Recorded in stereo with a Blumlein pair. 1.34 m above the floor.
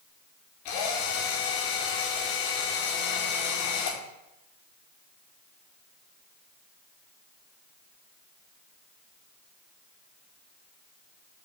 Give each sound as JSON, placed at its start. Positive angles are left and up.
{"t": 0.7, "sound": "a drill", "azimuth_deg": 45, "distance_m": 4.0}